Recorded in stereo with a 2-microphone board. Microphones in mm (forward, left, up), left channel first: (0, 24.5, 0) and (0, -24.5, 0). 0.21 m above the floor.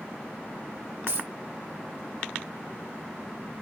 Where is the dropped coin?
65° right (ahead or behind), 2 m.